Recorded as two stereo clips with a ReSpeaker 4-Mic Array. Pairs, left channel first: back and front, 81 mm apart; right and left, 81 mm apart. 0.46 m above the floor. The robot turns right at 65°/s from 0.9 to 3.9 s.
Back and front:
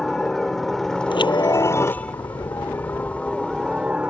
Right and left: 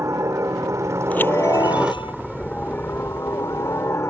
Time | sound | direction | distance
0.0 | a helicopter | 95° left | ?
1.1 | a chime | 165° right | ?